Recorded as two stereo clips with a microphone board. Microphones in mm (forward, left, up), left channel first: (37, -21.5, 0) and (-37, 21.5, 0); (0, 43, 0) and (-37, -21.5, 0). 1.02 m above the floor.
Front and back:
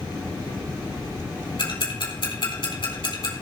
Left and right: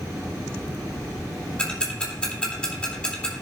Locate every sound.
1.6 s ticking: 15° right, 3.5 m